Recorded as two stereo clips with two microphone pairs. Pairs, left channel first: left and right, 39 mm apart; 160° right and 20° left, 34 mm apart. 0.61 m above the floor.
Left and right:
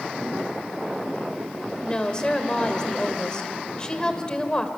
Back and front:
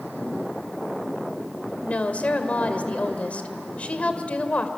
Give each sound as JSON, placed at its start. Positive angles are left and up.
{"t": 1.8, "sound": "a woman speaking", "azimuth_deg": 160, "distance_m": 2.5}